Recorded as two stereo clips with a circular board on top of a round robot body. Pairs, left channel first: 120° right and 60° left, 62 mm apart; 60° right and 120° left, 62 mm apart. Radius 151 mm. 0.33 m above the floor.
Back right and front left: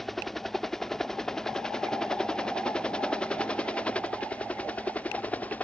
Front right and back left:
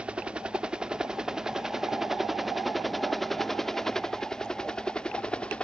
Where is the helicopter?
160° left; by 5.7 s 110° right.